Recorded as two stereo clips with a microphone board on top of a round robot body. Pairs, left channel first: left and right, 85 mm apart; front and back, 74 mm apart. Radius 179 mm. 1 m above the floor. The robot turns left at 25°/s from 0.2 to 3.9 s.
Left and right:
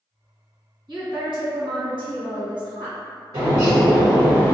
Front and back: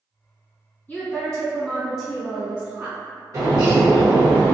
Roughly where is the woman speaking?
Right.